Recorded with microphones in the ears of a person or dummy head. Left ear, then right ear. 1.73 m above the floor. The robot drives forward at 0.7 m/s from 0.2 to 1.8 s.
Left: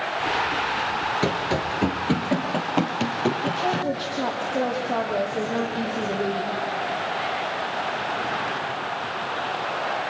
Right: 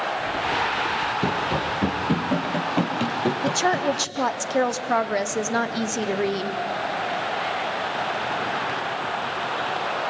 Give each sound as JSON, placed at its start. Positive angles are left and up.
{"t": 1.2, "sound": "running footsteps", "side_deg": 25, "distance_m": 1.9}
{"t": 3.4, "sound": "a woman speaking", "side_deg": -60, "distance_m": 1.3}